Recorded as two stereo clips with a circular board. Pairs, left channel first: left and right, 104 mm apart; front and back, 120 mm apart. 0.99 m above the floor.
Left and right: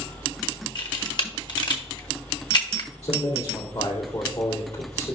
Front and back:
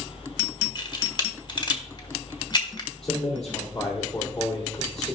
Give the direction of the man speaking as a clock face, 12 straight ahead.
9 o'clock.